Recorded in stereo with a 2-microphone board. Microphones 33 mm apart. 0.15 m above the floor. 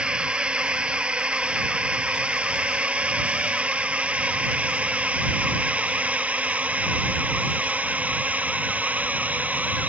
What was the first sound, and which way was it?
A drone, 35° right (ahead or behind).